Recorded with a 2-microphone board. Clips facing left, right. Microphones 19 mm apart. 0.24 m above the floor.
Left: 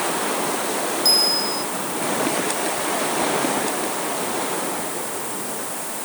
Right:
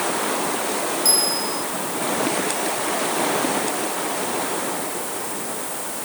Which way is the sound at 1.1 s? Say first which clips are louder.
Left 6 dB; 25° left (ahead or behind).